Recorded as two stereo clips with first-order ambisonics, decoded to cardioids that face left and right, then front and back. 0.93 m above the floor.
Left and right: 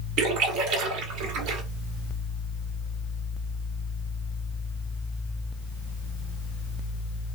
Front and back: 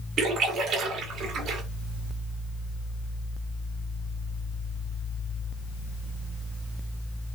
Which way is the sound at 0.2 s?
125° right.